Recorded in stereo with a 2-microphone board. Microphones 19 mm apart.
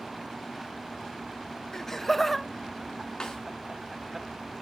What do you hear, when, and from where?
1.7 s laughter: 25° left (ahead or behind), 1.1 m; by 4.2 s 30° right (ahead or behind), 1.8 m
3.2 s a snare drum: 40° left (ahead or behind), 5 m